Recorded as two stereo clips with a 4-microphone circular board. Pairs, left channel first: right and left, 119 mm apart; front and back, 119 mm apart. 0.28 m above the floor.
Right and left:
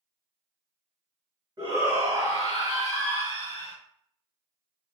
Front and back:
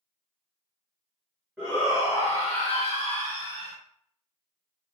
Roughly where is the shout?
Left.